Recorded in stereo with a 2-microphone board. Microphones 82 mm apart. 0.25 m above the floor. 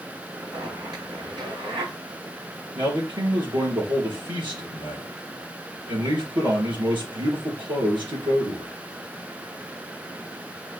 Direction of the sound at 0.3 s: 65° right (ahead or behind).